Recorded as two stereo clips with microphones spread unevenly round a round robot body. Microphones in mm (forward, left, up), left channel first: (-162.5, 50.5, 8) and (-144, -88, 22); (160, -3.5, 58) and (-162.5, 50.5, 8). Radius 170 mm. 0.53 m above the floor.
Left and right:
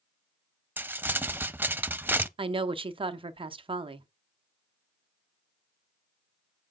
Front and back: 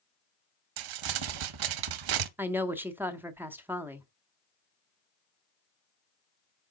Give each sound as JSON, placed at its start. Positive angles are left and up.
{"t": 0.8, "sound": "crumpling", "azimuth_deg": -160, "distance_m": 0.7}
{"t": 2.4, "sound": "a woman speaking", "azimuth_deg": -120, "distance_m": 0.7}